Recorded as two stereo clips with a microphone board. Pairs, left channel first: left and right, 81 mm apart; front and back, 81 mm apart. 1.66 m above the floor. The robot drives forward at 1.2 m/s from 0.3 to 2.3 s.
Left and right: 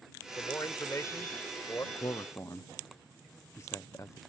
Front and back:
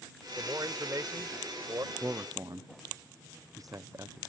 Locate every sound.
0.4 s a man speaking: 135° left; by 1.9 s 145° left
1.9 s a man speaking: 115° left; by 4.2 s 140° left